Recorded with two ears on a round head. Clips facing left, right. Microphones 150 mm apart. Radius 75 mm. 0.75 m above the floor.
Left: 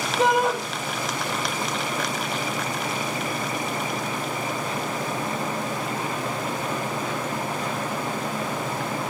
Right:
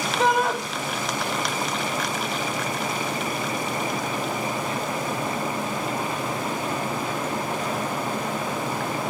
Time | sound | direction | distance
0.2 | a shout | 20° left (ahead or behind) | 3.5 m